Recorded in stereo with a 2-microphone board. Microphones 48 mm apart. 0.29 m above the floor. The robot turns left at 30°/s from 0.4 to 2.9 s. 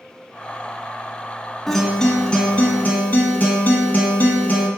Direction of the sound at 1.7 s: 175° left.